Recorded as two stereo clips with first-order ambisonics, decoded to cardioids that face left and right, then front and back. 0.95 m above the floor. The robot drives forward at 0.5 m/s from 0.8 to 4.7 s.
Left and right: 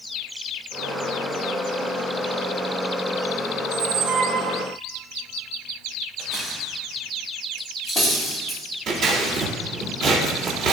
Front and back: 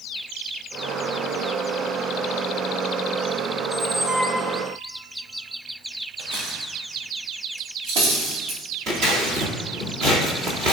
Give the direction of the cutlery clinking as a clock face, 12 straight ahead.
6 o'clock.